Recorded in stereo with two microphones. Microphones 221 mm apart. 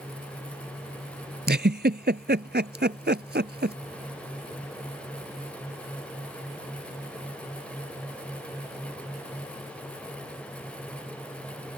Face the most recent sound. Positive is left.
turn(degrees=-50)  # may be behind; listen again after turning